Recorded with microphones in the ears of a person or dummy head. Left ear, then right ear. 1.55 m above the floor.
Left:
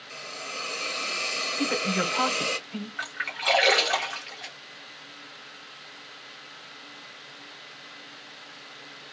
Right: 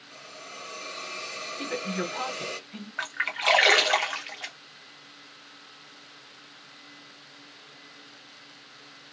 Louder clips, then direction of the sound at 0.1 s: Left 8 dB; 70° left (ahead or behind).